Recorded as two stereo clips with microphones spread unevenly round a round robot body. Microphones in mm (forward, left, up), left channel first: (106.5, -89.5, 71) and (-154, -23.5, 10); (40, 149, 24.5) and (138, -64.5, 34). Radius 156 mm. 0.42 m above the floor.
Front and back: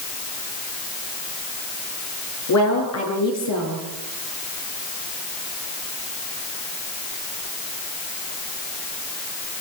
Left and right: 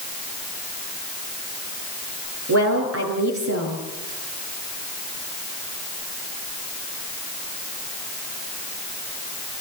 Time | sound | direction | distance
2.5 | a woman speaking | 40° right | 8.5 m